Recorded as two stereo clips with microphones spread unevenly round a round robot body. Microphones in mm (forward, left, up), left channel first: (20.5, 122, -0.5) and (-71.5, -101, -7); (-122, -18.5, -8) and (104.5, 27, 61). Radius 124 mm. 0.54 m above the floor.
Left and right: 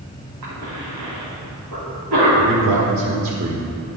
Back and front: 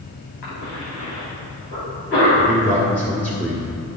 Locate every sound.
0.4 s a cough: 125° right, 3.5 m
2.4 s a man speaking: 95° right, 1.3 m